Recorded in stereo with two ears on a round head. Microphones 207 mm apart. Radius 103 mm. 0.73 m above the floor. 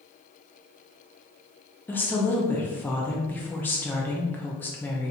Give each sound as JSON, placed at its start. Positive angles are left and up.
{"t": 1.9, "sound": "a woman speaking", "side_deg": 10, "distance_m": 0.5}